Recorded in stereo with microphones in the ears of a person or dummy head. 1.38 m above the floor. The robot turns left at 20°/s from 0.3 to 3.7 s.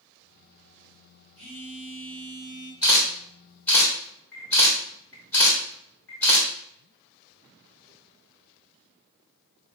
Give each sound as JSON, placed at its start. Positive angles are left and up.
{"t": 1.4, "sound": "a phone buzzing", "side_deg": -40, "distance_m": 1.9}
{"t": 2.8, "sound": "a camera shutter", "side_deg": -5, "distance_m": 1.7}